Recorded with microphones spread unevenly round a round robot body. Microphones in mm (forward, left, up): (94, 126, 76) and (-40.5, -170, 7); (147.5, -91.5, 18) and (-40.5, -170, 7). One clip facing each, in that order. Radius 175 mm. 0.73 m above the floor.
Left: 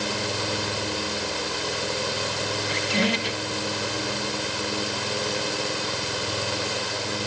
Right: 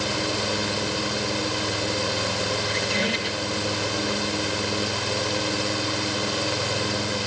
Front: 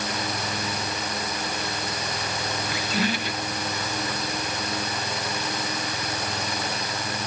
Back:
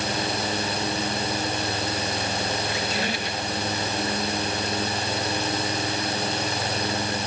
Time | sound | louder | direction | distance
2.6 | a squeak | left 1 dB, front 1 dB | 45° left | 3 m